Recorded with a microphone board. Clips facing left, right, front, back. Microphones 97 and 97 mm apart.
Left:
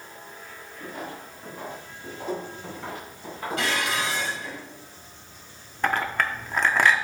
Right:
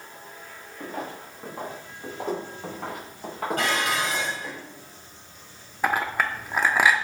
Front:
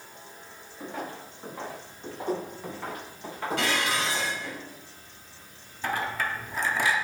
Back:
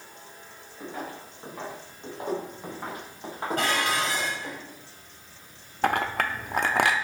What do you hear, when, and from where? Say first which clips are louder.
0.8 s footsteps: right 3 dB, even; 90° right, 3.5 m; by 4.6 s 120° right, 4.5 m
3.6 s dishes clattering: right 1 dB, back 2 dB; 135° right, 2.5 m
5.8 s a clink: even, back 4 dB; 170° right, 0.6 m